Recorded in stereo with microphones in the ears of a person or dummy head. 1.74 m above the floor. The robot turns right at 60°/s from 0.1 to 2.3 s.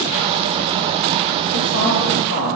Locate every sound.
1.5 s a woman speaking: 55° left, 2.5 m; by 2.6 s 105° left, 2.5 m